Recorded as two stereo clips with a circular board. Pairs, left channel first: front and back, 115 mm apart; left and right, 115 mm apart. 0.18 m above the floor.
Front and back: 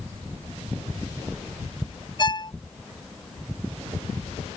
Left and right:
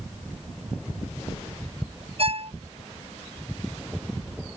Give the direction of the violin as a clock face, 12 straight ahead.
2 o'clock.